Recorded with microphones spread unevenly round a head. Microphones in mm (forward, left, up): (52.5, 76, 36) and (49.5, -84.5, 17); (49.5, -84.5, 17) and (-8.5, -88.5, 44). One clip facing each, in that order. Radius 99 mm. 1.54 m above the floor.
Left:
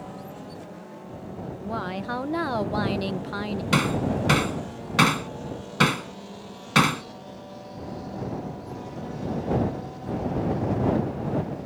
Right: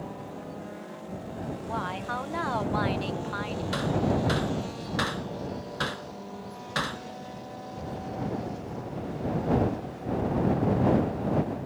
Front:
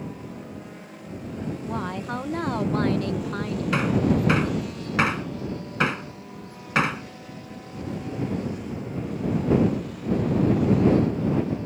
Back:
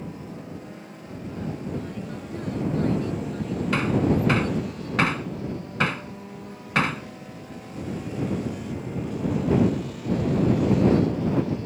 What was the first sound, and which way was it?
A woman speaking, 45° left.